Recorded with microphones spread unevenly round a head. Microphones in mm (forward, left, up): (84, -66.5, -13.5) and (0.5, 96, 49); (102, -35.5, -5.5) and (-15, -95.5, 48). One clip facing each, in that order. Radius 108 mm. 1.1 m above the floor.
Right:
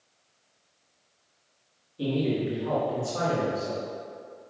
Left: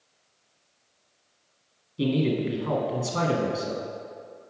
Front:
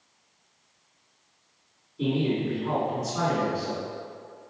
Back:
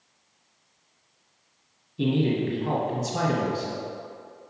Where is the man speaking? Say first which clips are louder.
Left 2 dB, back 2 dB; 170° left, 1.4 m.